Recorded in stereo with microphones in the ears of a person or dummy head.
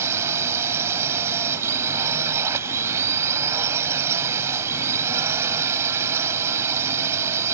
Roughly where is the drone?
Centre.